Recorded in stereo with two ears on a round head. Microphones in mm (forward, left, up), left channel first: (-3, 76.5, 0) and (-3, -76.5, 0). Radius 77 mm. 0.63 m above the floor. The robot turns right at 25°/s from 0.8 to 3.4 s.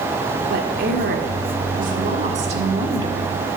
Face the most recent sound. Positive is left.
turn(degrees=-25)